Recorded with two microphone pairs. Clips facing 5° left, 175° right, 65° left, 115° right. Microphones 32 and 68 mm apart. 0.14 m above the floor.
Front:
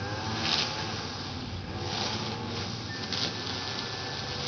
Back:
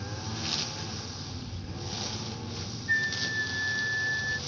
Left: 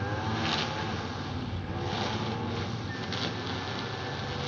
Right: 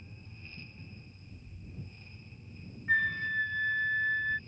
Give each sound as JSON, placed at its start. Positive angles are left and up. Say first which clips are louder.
{"t": 0.0, "sound": "a lawn mower", "louder": "front 5 dB, left 22 dB", "azimuth_deg": 65}
{"t": 2.9, "sound": "a flute", "louder": "back 9 dB, right 5 dB", "azimuth_deg": -140}